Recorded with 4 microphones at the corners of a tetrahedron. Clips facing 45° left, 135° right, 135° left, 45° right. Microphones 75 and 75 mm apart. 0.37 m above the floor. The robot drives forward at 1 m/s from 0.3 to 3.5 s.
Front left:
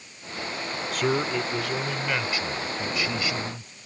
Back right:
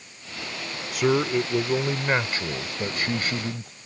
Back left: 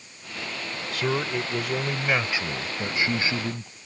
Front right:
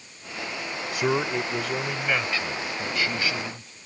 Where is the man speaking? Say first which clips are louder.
Back right 4 dB, front right 2 dB; 65° right; by 3.7 s 170° right.